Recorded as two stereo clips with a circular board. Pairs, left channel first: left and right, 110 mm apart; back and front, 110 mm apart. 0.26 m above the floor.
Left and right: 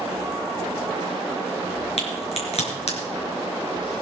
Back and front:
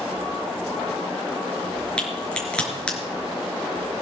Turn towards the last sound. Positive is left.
turn(degrees=100)